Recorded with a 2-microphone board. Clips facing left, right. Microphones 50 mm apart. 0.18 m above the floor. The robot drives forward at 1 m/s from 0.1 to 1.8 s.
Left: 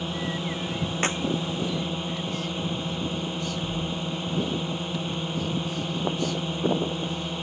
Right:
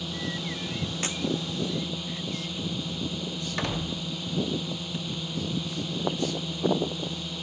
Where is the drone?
35° left (ahead or behind).